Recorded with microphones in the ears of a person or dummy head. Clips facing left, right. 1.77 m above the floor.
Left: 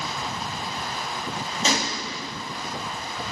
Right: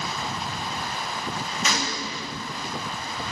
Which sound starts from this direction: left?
A gunshot, at 1.6 s.